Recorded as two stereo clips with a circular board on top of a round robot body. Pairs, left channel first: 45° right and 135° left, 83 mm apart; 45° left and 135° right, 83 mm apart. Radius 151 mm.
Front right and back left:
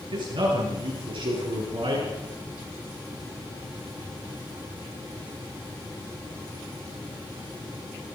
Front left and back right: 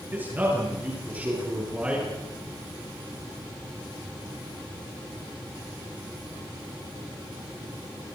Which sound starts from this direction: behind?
A man speaking, at 0.1 s.